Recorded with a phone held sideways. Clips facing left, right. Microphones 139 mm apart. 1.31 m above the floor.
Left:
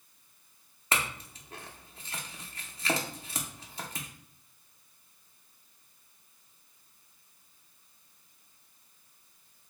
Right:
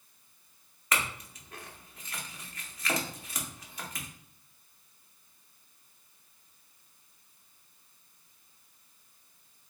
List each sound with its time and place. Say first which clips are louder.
0.9 s a clink: even; 30° left (ahead or behind), 0.6 m